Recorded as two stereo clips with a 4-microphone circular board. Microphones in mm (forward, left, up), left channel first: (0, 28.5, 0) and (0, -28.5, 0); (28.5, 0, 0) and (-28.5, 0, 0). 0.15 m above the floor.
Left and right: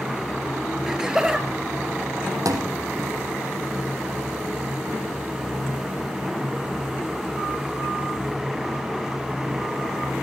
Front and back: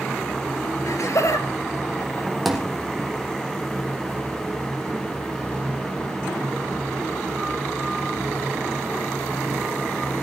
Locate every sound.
0.9 s laughter: 10° right, 2.5 m; by 2.3 s 20° right, 3.5 m
2.5 s a thud: 90° right, 3 m